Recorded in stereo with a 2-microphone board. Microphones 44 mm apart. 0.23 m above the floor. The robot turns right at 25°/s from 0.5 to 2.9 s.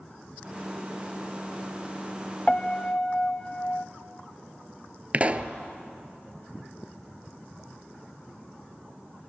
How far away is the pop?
About 0.8 m.